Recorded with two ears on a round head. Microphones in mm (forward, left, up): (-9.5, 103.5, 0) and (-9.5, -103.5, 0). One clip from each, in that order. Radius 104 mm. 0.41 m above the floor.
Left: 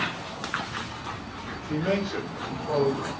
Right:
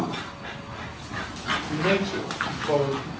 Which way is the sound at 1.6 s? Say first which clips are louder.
Even; 5° left (ahead or behind).